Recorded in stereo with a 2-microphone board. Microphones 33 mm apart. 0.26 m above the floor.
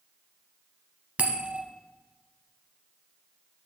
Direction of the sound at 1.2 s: 45° right (ahead or behind).